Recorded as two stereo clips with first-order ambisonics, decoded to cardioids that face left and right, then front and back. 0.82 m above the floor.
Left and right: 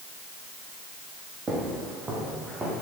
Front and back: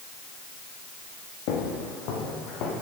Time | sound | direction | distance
1.5 | footsteps | 20° right | 3 m